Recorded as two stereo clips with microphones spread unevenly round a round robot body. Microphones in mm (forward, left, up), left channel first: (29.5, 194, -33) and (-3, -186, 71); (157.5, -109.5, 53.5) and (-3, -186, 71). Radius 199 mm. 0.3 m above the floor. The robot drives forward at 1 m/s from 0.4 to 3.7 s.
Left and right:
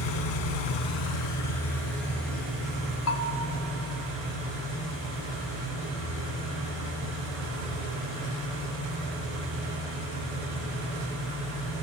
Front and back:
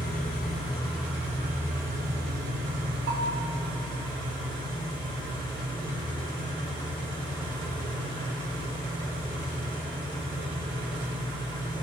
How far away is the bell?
About 0.6 m.